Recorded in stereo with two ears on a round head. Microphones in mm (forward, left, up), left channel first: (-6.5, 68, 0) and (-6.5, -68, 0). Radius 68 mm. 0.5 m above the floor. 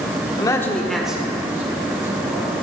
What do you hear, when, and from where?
0.4 s a man speaking: 30° left (ahead or behind), 0.8 m; by 2.6 s 25° right (ahead or behind), 3 m